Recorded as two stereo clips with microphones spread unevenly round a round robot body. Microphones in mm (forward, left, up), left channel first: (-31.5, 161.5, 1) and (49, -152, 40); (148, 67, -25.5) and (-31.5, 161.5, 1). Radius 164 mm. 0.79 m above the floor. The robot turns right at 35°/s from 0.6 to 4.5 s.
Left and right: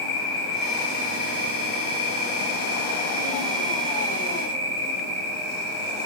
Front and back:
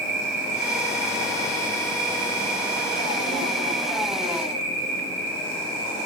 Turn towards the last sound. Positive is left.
turn(degrees=-110)